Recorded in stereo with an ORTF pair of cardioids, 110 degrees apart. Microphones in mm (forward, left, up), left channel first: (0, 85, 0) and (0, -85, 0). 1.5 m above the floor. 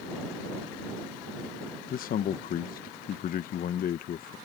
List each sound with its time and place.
1.9 s a man speaking: 60° left